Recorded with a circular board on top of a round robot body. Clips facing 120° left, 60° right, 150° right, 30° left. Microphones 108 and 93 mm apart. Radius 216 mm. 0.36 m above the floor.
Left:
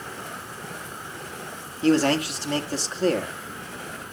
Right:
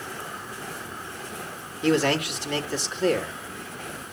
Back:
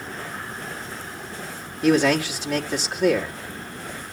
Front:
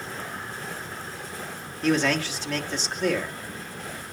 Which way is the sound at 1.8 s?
140° left.